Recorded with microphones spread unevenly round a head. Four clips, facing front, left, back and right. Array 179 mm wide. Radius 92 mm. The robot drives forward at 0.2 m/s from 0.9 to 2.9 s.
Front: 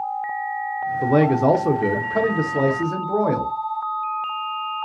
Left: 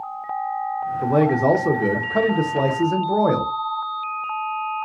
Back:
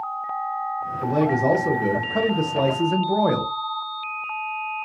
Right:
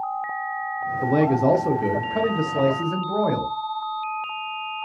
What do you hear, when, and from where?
1.0 s a man speaking: 45° left, 0.6 m; by 3.5 s 115° left, 0.5 m